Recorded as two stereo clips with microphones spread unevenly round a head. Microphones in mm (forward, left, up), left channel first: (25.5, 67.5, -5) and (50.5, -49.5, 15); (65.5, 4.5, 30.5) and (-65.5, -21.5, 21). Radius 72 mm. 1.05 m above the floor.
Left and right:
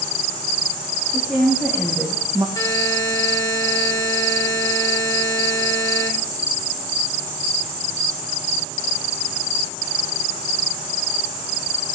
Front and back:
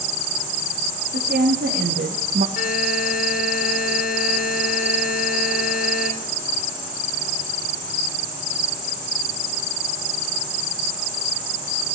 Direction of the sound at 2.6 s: 40° left.